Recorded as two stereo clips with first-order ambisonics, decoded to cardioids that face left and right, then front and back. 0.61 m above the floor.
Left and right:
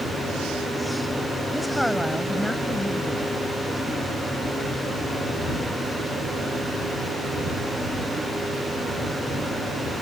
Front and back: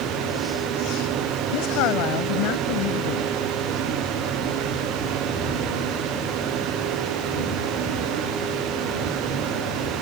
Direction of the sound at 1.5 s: Straight ahead.